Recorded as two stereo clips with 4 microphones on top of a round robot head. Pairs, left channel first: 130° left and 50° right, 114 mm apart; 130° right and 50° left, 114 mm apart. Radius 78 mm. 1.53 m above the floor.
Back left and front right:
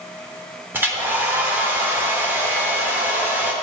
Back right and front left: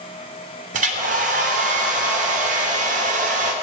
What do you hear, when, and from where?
0.7 s a hair dryer: 25° left, 0.8 m